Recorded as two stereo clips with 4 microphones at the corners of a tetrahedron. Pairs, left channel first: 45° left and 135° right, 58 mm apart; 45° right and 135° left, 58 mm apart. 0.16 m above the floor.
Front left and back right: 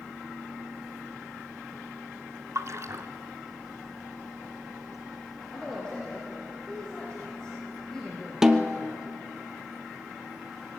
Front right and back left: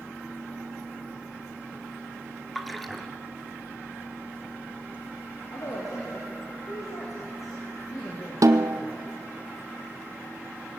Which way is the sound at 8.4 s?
145° left.